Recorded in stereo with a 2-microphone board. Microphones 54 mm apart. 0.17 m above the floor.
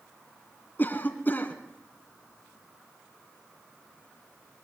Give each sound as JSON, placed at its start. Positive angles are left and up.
{"t": 0.8, "sound": "a cough", "side_deg": 40, "distance_m": 2.0}